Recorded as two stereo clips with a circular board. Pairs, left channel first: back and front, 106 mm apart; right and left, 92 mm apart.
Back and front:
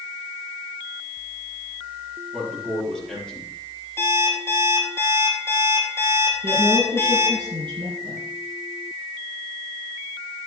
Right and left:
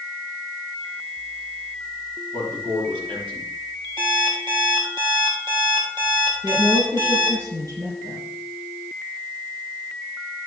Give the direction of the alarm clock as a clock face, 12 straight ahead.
8 o'clock.